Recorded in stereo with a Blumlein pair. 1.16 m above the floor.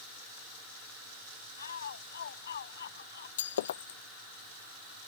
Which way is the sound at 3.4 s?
60° left.